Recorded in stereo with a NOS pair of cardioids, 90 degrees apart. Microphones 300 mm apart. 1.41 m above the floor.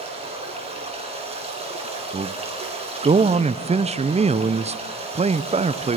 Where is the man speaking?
20° right, 0.7 m.